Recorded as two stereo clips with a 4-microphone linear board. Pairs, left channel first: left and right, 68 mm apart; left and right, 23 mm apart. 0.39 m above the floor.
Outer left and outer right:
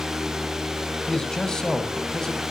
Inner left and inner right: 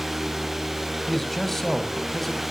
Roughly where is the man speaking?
Centre.